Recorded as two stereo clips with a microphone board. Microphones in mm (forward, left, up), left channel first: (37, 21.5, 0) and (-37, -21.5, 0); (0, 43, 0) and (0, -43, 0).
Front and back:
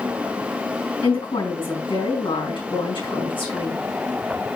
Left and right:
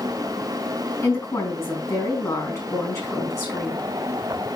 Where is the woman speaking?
35° left, 4.5 m.